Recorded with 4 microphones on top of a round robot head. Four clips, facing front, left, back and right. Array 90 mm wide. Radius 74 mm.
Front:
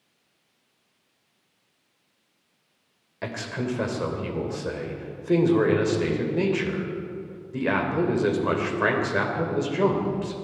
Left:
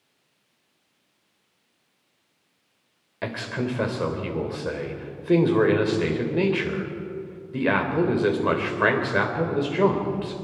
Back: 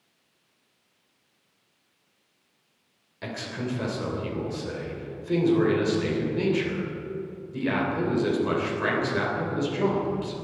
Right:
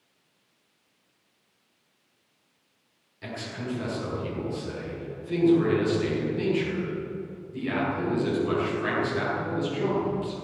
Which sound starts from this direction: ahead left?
A man speaking, at 3.2 s.